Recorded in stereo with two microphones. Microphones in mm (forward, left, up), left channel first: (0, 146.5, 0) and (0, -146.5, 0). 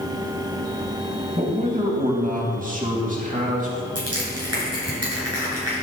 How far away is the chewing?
No chewing in this recording.